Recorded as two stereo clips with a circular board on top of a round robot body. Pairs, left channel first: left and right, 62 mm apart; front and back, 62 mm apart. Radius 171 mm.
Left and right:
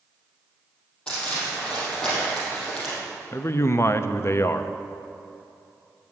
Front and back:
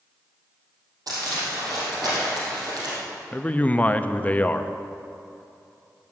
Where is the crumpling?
165° left, 5 m.